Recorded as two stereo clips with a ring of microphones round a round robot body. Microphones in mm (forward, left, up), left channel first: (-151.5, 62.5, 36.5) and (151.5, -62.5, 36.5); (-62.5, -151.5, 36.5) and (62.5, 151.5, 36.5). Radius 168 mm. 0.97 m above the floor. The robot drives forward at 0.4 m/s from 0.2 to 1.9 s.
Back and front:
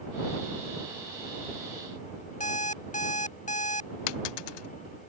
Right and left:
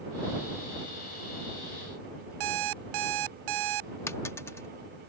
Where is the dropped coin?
165° left.